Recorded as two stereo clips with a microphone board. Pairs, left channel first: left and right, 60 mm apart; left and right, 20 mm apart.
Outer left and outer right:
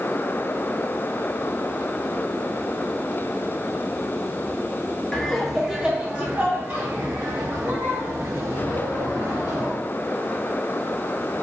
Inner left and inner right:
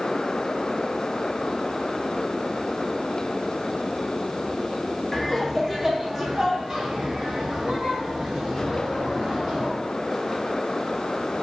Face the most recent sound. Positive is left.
turn(degrees=-70)  # may be behind; listen again after turning